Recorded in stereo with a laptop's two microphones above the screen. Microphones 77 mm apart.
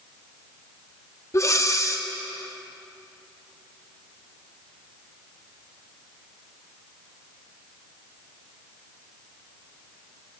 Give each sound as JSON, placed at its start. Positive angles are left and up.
{"t": 1.3, "sound": "breathing", "side_deg": 40, "distance_m": 0.8}